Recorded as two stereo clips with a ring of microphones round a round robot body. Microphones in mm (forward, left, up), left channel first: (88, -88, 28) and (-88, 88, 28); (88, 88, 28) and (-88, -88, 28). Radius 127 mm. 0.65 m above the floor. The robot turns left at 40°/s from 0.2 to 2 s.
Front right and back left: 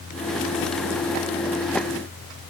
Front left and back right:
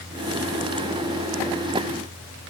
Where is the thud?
No thud in this recording.